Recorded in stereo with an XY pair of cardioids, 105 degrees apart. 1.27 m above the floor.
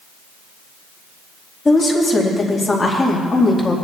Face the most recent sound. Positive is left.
turn(degrees=20)